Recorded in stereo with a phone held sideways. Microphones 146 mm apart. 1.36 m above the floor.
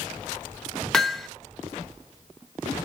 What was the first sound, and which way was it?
Hammering, 5° left (ahead or behind).